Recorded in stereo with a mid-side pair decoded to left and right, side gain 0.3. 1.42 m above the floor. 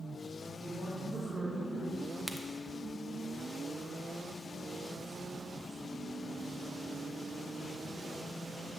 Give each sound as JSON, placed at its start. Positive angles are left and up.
{"t": 0.5, "sound": "a woman speaking", "azimuth_deg": -40, "distance_m": 3.5}
{"t": 2.3, "sound": "a crack", "azimuth_deg": -5, "distance_m": 1.0}